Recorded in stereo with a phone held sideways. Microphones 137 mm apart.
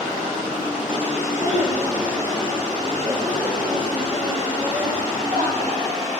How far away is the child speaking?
About 3.5 m.